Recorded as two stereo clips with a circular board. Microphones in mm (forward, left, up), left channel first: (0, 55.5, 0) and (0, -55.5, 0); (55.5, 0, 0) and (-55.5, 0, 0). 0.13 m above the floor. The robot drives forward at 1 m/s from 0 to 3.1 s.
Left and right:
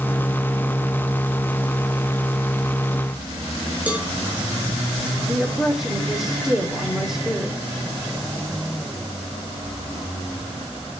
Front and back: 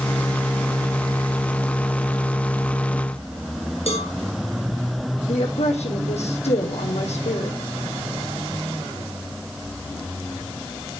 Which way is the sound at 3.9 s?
15° right.